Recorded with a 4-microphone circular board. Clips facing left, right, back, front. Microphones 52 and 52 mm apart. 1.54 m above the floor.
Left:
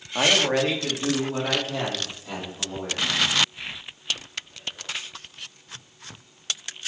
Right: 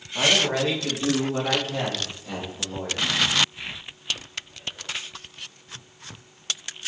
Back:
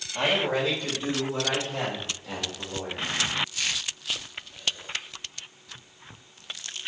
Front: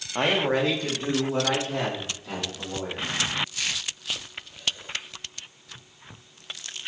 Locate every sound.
0.1 s a man speaking: 50° left, 1.2 m; by 3.1 s 25° left, 5.5 m